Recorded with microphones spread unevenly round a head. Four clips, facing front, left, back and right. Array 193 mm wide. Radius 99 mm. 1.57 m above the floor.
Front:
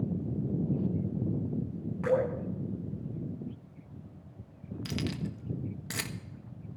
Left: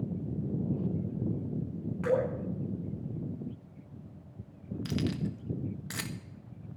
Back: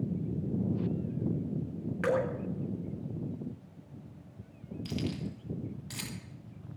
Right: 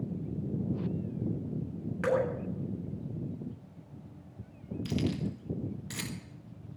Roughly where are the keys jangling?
Ahead.